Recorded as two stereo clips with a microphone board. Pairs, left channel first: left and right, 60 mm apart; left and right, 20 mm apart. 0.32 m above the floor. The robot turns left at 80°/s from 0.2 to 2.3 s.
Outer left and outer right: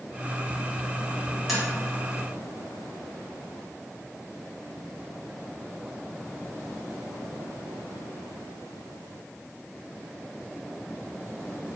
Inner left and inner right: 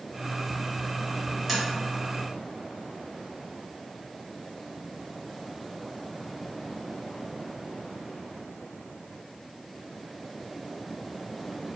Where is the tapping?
Centre (ahead or behind), 1.1 m; by 1.6 s 5° right (ahead or behind), 1.1 m.